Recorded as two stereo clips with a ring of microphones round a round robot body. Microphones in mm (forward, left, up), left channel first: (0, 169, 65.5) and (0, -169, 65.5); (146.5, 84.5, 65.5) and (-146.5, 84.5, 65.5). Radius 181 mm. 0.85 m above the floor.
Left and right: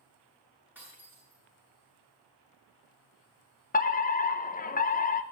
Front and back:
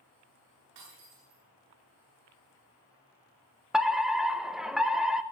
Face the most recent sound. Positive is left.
turn(degrees=95)